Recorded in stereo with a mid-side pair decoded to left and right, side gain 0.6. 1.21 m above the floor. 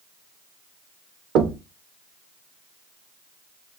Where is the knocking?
60° right, 0.5 m.